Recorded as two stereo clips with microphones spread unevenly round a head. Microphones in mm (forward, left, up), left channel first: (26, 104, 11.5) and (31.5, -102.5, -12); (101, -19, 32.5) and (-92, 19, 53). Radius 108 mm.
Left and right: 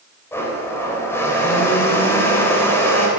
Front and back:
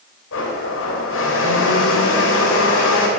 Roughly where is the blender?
Ahead.